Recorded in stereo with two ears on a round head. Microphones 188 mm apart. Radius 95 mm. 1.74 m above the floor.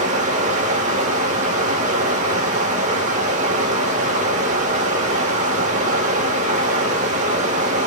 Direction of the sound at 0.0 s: 35° right (ahead or behind).